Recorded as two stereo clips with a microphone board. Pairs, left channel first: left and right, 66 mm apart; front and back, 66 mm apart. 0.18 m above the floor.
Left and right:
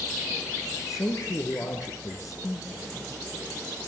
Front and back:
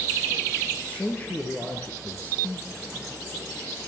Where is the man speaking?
65° left, 3 m.